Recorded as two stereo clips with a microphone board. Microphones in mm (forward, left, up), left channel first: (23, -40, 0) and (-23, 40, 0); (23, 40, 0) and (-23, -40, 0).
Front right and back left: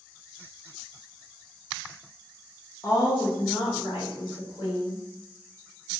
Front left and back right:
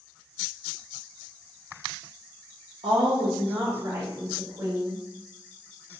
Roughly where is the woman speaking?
Behind right.